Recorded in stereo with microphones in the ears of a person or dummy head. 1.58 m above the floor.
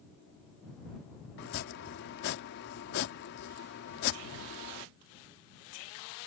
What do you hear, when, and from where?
1.4 s chopping: 55° left (ahead or behind)